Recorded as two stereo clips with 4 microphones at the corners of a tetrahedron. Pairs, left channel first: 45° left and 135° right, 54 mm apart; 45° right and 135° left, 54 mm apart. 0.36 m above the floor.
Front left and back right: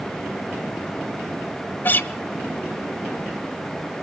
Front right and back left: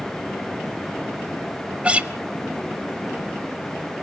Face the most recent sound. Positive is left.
turn(degrees=75)